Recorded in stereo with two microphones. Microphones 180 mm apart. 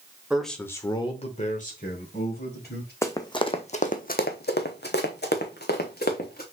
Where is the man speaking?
5° right (ahead or behind), 0.9 m; by 2.9 s 60° left (ahead or behind), 1.9 m.